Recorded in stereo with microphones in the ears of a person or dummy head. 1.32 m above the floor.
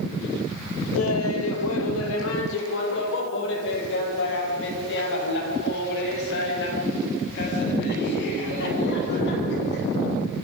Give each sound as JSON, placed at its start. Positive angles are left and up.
{"t": 0.9, "sound": "laughter", "side_deg": 80, "distance_m": 2.5}